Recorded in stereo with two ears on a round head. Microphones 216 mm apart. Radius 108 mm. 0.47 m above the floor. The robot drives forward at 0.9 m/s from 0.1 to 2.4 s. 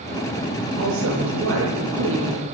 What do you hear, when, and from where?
0.8 s a woman speaking: 65° right (ahead or behind), 9.5 m; by 2.4 s 60° right (ahead or behind), 10.5 m